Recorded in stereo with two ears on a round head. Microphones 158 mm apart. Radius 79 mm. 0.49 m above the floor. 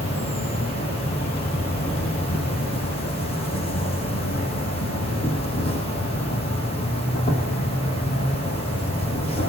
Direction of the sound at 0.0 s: 35° left (ahead or behind).